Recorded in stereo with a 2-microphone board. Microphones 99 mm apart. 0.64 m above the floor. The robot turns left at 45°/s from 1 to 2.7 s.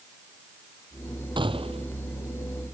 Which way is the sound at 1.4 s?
55° right (ahead or behind).